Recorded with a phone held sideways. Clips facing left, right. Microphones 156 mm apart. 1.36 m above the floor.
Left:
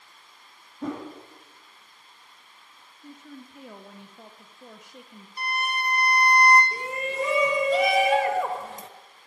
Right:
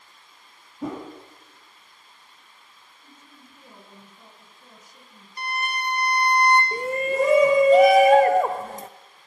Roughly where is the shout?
Right.